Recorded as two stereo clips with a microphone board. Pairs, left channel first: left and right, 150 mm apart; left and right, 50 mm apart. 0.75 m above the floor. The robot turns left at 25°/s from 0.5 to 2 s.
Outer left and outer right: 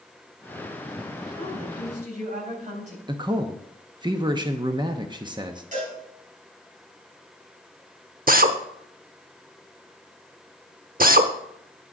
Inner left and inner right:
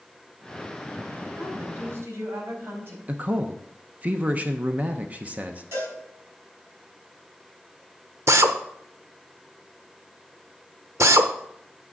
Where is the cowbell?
55° right (ahead or behind), 5.5 m.